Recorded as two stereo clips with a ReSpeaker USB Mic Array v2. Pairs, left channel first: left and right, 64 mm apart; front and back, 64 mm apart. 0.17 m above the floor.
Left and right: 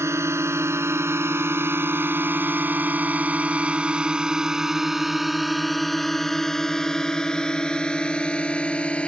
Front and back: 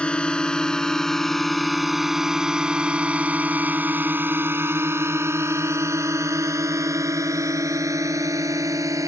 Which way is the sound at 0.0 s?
70° right.